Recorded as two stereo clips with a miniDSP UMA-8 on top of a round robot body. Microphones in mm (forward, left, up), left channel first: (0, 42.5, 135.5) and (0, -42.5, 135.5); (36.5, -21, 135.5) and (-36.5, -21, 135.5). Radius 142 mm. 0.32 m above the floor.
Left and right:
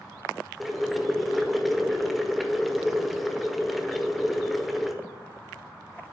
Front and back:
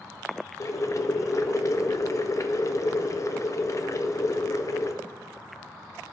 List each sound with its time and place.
0.6 s boiling: straight ahead, 1.1 m